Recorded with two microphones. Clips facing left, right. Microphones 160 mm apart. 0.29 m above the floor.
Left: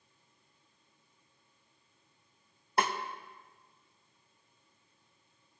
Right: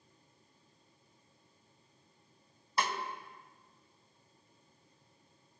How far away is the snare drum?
About 0.6 m.